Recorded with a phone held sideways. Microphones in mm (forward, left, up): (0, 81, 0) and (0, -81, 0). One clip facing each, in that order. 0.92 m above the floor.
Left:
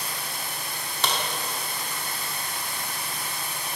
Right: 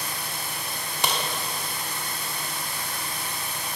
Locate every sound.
1.0 s a crack: 15° right (ahead or behind), 0.9 m